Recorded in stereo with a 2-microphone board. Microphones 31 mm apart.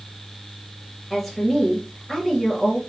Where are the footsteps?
No footsteps in this recording.